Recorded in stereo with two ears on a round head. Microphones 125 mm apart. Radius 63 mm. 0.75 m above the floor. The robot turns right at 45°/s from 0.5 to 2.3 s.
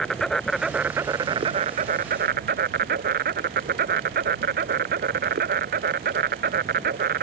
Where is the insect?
175° left; by 7.2 s 105° right.